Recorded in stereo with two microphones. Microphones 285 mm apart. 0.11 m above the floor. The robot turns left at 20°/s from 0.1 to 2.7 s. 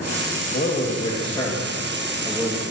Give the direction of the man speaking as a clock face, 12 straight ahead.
11 o'clock.